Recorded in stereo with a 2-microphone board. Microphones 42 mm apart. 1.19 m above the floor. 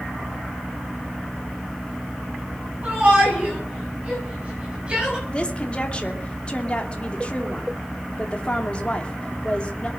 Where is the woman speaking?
25° left (ahead or behind), 2.5 m.